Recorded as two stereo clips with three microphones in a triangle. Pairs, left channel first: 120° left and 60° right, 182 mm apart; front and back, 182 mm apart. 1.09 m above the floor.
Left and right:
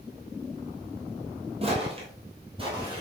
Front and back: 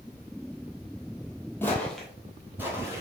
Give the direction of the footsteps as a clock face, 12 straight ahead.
2 o'clock.